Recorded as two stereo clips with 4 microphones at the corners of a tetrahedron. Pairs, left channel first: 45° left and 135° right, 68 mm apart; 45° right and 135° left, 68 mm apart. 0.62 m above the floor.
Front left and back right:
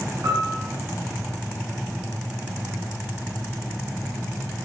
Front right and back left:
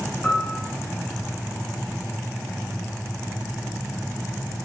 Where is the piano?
115° right, 1.5 m.